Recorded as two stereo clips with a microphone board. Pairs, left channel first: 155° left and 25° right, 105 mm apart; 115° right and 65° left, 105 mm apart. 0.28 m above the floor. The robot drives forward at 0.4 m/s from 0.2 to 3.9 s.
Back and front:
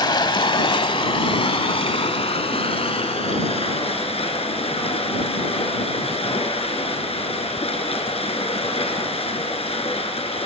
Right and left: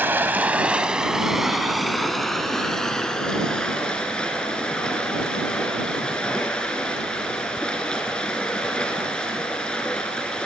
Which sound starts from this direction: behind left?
Running water, at 0.0 s.